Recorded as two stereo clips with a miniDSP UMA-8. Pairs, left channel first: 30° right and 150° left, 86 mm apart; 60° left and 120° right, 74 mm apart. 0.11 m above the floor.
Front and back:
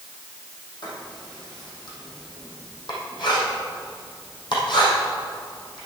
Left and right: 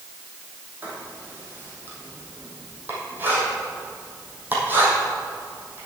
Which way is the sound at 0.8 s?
55° right.